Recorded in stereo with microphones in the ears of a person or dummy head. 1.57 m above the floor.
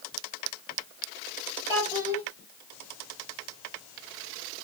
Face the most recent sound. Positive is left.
turn(degrees=-15)  # may be behind; listen again after turning